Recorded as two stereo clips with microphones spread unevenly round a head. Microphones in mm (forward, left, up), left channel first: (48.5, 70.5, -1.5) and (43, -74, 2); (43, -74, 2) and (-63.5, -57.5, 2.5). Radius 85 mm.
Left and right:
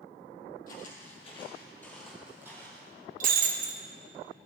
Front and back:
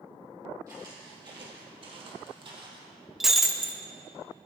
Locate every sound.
0.7 s footsteps: 105° left, 2.5 m; by 2.9 s 155° right, 2.5 m
3.2 s breaking glass: 105° right, 1.0 m